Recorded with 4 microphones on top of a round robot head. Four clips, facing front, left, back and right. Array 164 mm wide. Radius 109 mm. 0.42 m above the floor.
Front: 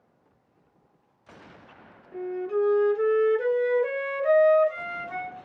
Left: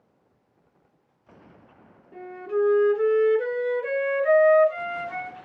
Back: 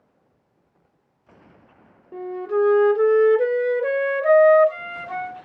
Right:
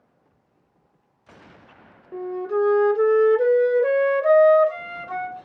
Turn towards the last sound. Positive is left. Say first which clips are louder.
# right 3 dB, back 4 dB
turn(degrees=-130)